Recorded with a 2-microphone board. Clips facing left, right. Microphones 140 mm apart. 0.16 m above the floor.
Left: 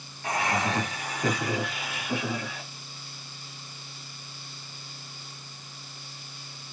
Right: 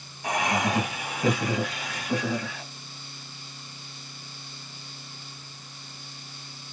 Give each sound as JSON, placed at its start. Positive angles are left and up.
{"t": 0.2, "sound": "laughter", "side_deg": -20, "distance_m": 1.4}